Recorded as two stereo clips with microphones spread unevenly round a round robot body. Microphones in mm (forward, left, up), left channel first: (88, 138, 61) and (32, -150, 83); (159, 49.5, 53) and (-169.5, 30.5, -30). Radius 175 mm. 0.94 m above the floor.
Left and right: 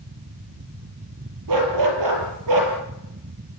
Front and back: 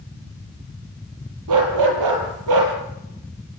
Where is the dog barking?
135° right, 7.5 m.